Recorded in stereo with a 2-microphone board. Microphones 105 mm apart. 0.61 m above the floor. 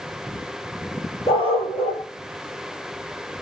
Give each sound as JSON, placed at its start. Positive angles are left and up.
{"t": 1.3, "sound": "a dog barking", "side_deg": 55, "distance_m": 6.5}